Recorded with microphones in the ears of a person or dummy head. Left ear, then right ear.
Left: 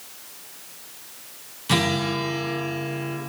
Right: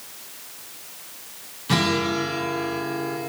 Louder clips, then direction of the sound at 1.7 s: Right 1 dB; 20° left (ahead or behind).